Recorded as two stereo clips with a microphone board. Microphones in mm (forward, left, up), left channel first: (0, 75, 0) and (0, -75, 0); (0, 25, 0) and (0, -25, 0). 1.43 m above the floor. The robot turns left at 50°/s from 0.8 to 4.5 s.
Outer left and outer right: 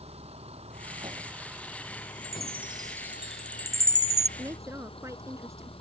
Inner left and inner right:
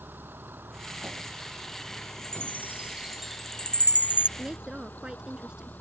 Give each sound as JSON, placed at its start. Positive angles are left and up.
{"t": 0.0, "sound": "a vehicle", "azimuth_deg": -135}
{"t": 2.2, "sound": "a chime", "side_deg": -55}
{"t": 4.4, "sound": "a woman speaking", "side_deg": -25}